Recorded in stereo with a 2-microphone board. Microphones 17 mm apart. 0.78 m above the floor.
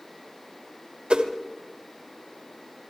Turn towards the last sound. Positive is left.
turn(degrees=-75)  # may be behind; listen again after turning